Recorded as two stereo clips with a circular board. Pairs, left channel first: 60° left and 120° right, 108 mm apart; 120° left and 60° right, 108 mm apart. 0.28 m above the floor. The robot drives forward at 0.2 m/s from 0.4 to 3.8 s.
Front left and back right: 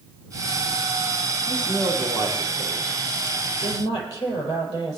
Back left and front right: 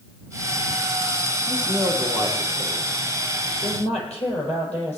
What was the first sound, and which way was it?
A woman speaking, 105° left.